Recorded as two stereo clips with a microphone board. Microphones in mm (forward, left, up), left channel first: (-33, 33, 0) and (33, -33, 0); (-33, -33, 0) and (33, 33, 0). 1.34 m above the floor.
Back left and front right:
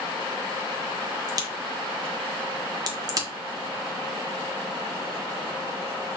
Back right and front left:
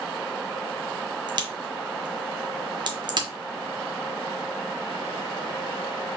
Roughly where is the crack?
Ahead.